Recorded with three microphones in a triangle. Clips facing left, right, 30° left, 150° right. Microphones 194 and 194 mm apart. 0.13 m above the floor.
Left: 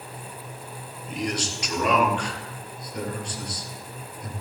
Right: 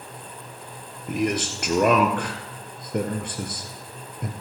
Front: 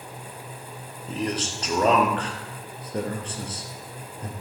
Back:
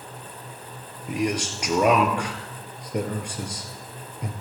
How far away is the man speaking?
About 2.5 m.